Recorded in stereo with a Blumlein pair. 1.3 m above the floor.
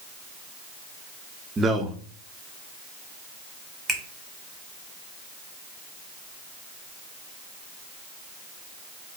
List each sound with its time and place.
1.6 s a man speaking: 15° right, 0.5 m
3.9 s a finger snap: 15° right, 1.0 m